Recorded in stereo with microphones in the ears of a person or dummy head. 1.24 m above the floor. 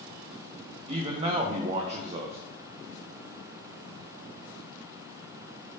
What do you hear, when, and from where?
0.9 s a man speaking: 35° right (ahead or behind), 0.6 m